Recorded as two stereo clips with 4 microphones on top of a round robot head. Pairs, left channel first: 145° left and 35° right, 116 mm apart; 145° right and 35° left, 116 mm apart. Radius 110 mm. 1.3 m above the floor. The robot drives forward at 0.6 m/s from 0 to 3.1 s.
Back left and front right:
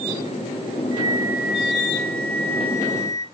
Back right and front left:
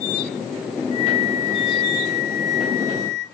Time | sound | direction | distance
0.9 | a flute | 95° right | 0.8 m